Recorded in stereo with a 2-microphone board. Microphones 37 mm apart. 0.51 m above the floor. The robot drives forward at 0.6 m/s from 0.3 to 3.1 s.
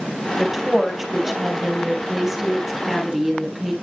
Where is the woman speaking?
5° right (ahead or behind), 3 m.